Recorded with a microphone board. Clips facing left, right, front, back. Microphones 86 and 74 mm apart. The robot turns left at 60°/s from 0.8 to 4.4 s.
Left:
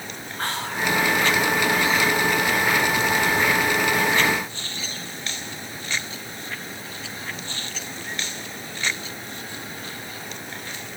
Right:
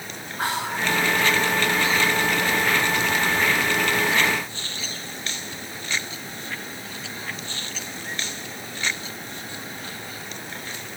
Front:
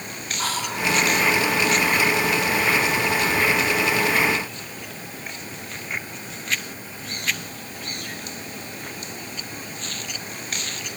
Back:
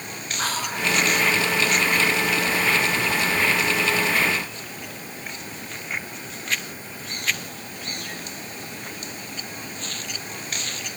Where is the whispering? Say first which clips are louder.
Right 1 dB, even; 165° right, 1.5 m; by 0.9 s 175° right, 1.5 m.